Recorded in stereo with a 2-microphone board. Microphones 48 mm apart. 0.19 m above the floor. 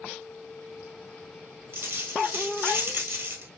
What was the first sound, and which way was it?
A dropped coin, 65° right (ahead or behind).